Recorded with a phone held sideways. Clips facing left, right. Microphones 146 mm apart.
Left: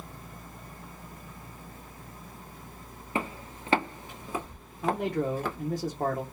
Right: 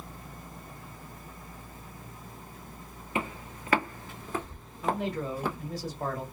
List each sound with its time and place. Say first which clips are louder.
3.1 s footsteps: left 1 dB; 35° left (ahead or behind), 1.5 m; by 5.6 s 15° right (ahead or behind), 1.5 m
4.8 s a man speaking: left 3 dB; 50° left (ahead or behind), 1.0 m